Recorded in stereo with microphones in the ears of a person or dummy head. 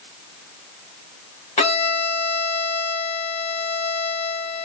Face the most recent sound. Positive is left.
turn(degrees=30)  # may be behind; listen again after turning